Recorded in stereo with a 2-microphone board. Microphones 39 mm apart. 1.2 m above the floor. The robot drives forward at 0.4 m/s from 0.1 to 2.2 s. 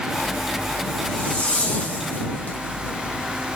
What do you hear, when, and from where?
0.2 s a zipper: 25° left (ahead or behind), 2 m; by 3.6 s 35° left (ahead or behind), 1.5 m